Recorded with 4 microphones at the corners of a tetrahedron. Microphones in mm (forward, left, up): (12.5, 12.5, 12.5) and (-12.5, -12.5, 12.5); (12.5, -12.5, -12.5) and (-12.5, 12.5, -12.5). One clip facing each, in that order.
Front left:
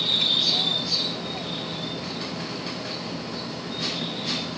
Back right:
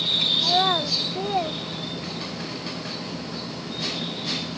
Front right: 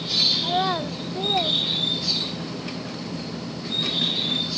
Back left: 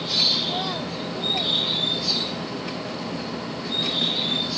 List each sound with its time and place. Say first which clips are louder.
0.4 s a child speaking: back right 3 dB, front right 3 dB; 105° right; by 2.5 s 100° right